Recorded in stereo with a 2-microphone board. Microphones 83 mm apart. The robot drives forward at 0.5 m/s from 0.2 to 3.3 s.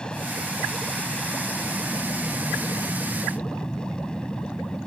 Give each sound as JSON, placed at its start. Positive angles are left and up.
{"t": 0.0, "sound": "an aircraft", "side_deg": 10}